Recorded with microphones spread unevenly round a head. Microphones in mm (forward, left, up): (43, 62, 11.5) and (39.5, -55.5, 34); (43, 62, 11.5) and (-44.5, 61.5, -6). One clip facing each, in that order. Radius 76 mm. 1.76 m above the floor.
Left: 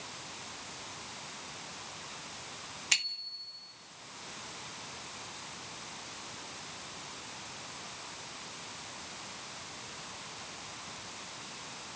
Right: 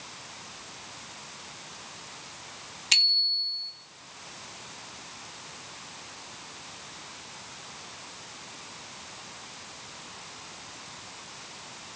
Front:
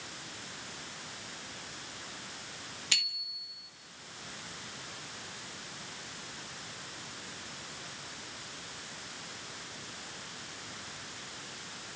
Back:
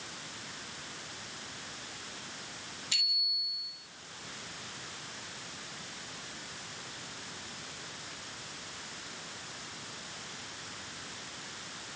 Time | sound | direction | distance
2.9 | a bicycle bell | 35° right | 2.5 m